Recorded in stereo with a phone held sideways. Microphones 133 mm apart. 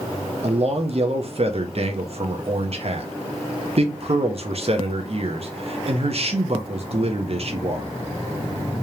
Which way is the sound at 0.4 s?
55° right (ahead or behind).